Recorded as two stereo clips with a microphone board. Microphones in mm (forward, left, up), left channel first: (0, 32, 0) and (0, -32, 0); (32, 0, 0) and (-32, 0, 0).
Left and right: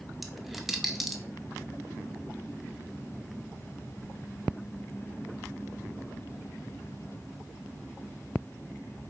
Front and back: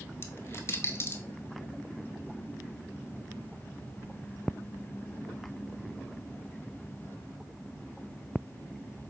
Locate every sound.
0.2 s a dropped coin: 5° right, 0.6 m